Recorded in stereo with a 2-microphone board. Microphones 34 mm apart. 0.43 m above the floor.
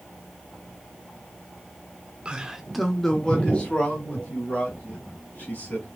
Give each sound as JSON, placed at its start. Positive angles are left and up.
{"t": 2.2, "sound": "a man speaking", "side_deg": -25, "distance_m": 0.9}